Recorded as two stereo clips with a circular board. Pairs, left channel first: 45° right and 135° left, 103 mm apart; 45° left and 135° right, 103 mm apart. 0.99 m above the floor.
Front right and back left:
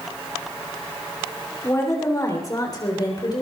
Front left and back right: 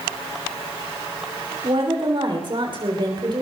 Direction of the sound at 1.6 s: 105° right.